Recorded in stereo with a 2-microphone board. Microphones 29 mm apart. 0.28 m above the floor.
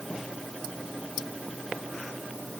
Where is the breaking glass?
No breaking glass in this recording.